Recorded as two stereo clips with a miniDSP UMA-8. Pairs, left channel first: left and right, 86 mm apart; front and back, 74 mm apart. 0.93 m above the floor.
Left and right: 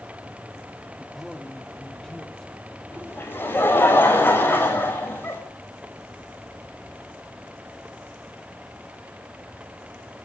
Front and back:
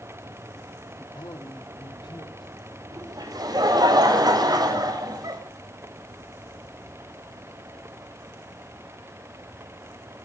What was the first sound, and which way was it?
A man speaking, 5° right.